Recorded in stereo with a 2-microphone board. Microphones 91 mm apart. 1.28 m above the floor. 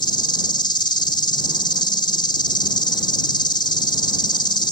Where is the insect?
60° left (ahead or behind).